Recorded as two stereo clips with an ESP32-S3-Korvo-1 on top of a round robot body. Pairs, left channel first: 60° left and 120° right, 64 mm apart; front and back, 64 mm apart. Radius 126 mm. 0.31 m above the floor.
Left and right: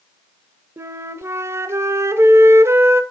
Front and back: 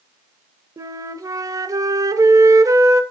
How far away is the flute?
About 0.7 m.